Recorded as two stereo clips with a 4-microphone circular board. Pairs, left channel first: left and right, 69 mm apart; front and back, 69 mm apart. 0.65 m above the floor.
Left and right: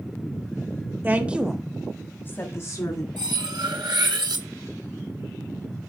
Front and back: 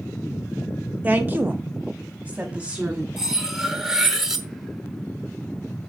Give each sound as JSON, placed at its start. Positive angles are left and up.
{"t": 1.0, "sound": "a woman speaking", "azimuth_deg": -130, "distance_m": 1.2}
{"t": 3.2, "sound": "cutlery clinking", "azimuth_deg": -95, "distance_m": 0.9}